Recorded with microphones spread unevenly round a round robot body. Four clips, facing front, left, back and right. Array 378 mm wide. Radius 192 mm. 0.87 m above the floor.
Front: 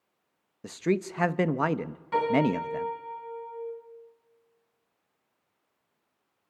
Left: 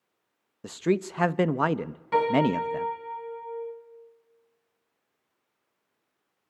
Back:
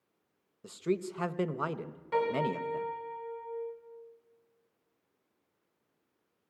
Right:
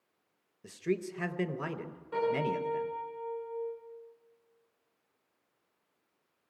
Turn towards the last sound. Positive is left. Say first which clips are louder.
# left 8 dB, front 5 dB
turn(degrees=85)